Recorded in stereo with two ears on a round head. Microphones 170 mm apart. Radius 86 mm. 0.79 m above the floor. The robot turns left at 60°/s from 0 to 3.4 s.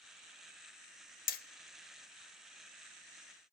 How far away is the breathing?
I don't hear breathing.